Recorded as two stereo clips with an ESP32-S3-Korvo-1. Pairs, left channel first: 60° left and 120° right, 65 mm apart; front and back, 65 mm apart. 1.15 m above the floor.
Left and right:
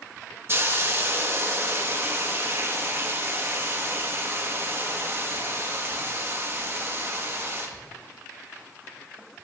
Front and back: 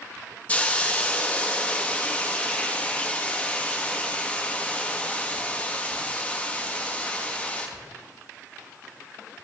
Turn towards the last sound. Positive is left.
turn(degrees=-70)